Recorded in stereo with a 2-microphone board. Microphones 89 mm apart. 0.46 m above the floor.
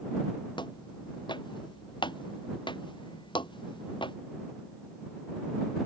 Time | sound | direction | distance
0.6 | footsteps | 60° left (ahead or behind) | ?